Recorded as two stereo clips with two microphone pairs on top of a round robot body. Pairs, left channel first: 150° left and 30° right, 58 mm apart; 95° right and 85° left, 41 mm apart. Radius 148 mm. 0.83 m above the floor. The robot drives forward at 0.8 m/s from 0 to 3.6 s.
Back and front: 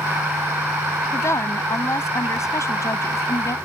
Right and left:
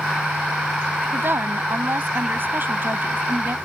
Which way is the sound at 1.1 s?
110° left.